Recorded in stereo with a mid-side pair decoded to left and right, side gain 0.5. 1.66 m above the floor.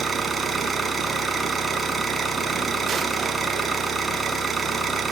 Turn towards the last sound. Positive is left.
turn(degrees=-25)